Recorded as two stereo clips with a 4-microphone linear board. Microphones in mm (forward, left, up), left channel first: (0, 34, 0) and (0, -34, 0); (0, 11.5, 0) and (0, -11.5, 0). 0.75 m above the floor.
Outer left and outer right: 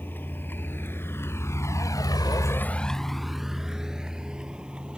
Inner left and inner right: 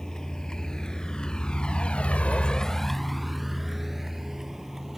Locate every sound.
0.0 s a vehicle: 30° left (ahead or behind); by 5.0 s 15° right (ahead or behind)